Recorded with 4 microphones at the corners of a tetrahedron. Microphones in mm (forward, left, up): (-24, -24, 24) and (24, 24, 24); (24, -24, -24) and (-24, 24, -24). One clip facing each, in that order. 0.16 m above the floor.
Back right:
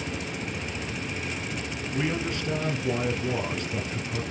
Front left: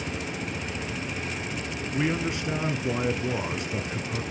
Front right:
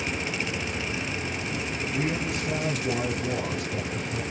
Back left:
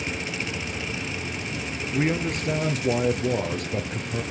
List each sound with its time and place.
1.9 s a man speaking: 115° left, 2 m